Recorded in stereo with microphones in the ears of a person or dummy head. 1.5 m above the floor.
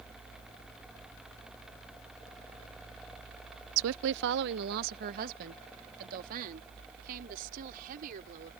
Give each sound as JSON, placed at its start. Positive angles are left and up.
{"t": 3.8, "sound": "a woman speaking", "side_deg": -75}